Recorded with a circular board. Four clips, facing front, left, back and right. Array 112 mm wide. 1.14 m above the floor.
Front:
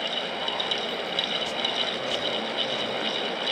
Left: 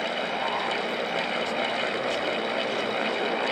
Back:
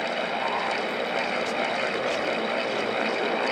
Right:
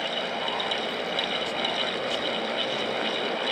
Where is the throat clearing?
I don't hear throat clearing.